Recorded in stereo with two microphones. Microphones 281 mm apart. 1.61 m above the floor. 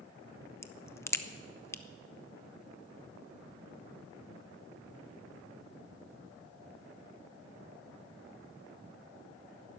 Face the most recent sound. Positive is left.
turn(degrees=10)  # may be behind; listen again after turning